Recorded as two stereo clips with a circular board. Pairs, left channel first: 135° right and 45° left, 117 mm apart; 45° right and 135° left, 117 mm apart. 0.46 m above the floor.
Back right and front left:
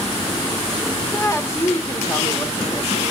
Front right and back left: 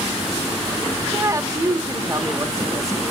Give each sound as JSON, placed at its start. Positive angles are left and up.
{"t": 1.1, "sound": "a woman speaking", "azimuth_deg": 175, "distance_m": 1.1}